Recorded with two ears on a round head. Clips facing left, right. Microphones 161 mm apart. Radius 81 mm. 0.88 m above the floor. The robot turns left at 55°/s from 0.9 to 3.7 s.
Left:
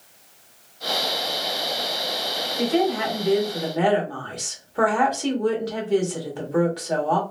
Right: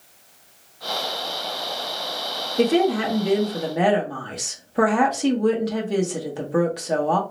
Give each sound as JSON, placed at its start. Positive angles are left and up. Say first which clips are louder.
{"t": 2.6, "sound": "a woman speaking", "louder": "right 3 dB", "azimuth_deg": -95, "distance_m": 1.4}